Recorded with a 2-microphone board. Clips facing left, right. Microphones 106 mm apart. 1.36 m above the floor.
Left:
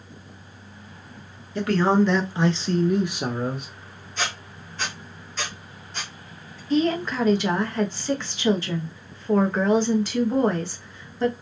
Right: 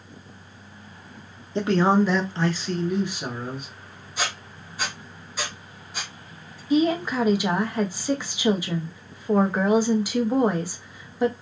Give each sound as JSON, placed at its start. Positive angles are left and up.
{"t": 1.6, "sound": "a man speaking", "side_deg": -25, "distance_m": 0.7}
{"t": 4.2, "sound": "a squeak", "side_deg": -10, "distance_m": 0.7}
{"t": 6.7, "sound": "a woman speaking", "side_deg": -10, "distance_m": 0.5}